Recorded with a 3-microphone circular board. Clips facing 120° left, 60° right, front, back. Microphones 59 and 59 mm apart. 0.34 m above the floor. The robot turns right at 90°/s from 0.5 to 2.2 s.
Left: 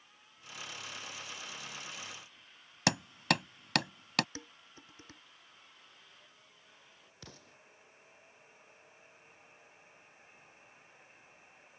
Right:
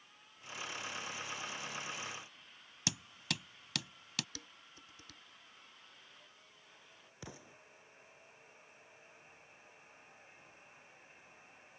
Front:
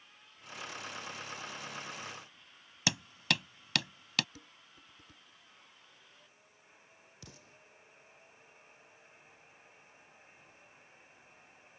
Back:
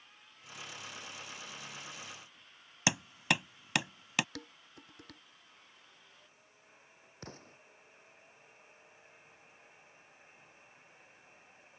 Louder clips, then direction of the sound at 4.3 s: Left 5 dB, back 7 dB; 175° left.